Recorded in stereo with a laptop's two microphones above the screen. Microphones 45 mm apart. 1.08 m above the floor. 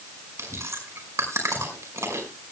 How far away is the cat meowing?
No cat meowing in this recording.